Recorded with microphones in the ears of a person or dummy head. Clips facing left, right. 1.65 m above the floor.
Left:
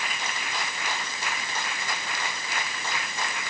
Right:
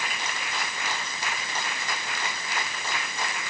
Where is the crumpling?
No crumpling in this recording.